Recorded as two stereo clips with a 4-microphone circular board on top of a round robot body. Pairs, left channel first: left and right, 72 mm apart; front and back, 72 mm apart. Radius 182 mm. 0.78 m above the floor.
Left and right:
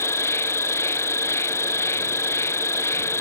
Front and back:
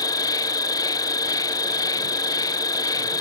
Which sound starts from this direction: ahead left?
An insect, at 0.0 s.